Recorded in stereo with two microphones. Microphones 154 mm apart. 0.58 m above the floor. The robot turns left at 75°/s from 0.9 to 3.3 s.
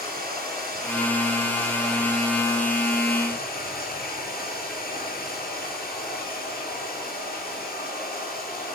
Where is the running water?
105° right, 7.5 m; by 8.8 s 75° left, 7.5 m.